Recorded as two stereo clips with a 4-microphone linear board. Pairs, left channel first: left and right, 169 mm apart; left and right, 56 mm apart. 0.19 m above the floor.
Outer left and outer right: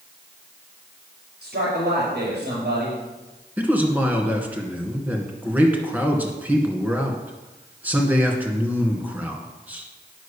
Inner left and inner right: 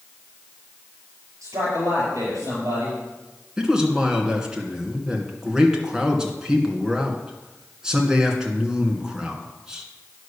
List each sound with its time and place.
1.4 s a man speaking: 65° right (ahead or behind), 5 m
3.6 s a man speaking: 10° right (ahead or behind), 2 m